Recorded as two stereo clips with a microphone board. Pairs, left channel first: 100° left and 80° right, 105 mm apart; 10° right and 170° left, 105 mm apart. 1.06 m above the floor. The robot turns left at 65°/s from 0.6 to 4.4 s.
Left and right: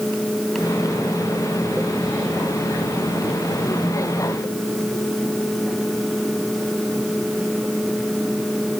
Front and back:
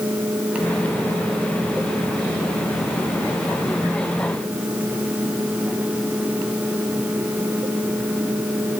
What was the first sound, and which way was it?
Only background noise.